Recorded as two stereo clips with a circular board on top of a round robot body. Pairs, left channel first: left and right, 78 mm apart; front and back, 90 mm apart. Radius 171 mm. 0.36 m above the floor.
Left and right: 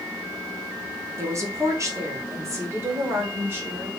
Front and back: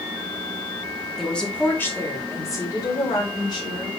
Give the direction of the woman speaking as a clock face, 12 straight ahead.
3 o'clock.